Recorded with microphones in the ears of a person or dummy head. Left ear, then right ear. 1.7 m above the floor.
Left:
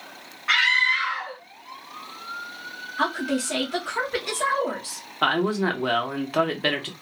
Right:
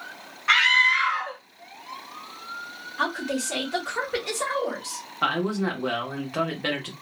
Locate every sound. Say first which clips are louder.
0.5 s a scream: right 1 dB; 20° right (ahead or behind), 0.7 m
3.0 s a woman speaking: left 2 dB; centre (ahead or behind), 1.2 m
5.2 s a man speaking: left 3 dB; 15° left (ahead or behind), 0.8 m